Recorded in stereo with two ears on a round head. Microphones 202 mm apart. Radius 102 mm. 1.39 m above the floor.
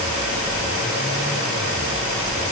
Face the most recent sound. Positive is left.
No sound to turn to.